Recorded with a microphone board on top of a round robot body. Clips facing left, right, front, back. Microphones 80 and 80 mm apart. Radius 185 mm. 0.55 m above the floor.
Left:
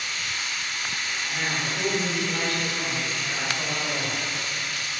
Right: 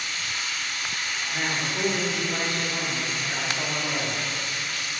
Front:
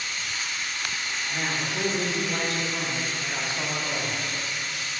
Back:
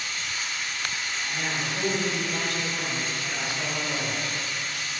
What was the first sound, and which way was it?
Running water, 135° right.